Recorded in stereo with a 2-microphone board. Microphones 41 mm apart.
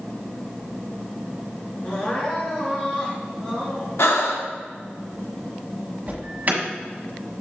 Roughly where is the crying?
Left.